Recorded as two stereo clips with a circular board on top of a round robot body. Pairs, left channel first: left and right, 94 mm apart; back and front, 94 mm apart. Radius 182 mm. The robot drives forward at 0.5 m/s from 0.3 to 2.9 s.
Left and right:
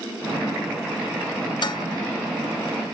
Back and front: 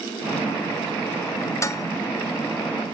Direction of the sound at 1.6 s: 125° left.